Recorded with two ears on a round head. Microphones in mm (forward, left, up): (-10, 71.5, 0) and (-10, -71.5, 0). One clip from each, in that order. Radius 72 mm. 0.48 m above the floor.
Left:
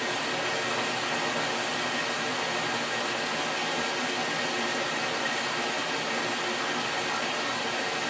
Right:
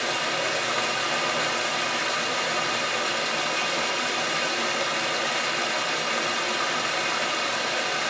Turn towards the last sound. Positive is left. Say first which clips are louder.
# right 4 dB
turn(degrees=-80)